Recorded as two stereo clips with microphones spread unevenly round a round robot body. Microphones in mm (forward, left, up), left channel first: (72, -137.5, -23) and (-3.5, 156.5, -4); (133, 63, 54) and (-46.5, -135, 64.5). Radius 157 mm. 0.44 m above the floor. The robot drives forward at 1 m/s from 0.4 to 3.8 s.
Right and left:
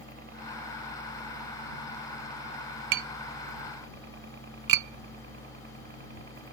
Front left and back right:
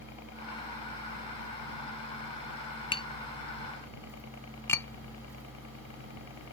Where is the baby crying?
I don't hear a baby crying.